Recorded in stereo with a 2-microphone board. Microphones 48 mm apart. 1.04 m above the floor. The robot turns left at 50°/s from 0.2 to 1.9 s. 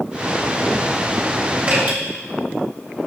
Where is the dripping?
30° right (ahead or behind), 1.1 m; by 2.0 s 40° right (ahead or behind), 1.1 m.